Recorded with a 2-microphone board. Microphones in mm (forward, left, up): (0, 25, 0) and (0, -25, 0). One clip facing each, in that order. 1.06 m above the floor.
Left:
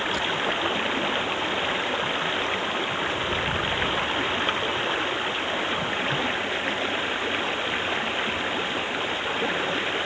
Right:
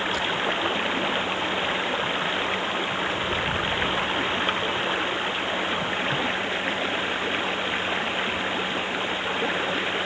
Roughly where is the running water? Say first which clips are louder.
Even; centre.